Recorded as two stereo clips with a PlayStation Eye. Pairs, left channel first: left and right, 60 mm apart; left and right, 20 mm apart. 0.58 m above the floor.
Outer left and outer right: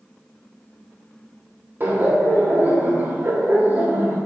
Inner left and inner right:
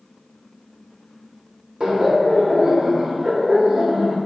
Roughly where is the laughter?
Right.